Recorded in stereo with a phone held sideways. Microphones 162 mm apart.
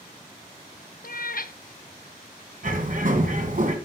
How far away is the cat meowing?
About 0.6 m.